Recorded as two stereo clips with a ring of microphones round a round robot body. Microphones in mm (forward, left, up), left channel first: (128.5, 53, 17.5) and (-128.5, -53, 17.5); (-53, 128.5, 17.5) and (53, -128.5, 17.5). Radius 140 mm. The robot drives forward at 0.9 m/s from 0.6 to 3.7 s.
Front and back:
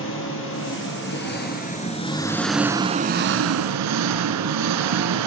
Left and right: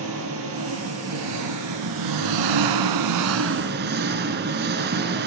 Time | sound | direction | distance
0.0 | an engine running | 25° right | 2.5 m